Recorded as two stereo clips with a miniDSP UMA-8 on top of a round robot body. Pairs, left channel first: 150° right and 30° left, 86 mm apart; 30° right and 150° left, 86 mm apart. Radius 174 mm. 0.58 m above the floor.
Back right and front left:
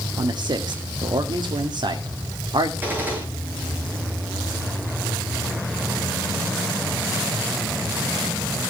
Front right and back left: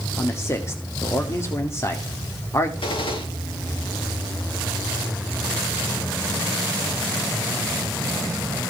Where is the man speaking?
20° left, 2.5 m.